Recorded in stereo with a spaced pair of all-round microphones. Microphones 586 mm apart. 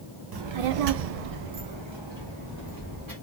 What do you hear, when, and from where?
0.3 s a child speaking: 40° right (ahead or behind), 0.6 m; by 3.1 s 35° right (ahead or behind), 1.6 m